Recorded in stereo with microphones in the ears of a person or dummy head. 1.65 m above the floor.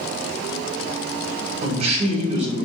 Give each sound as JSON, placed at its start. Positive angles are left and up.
{"t": 1.6, "sound": "a man speaking", "side_deg": -40, "distance_m": 1.4}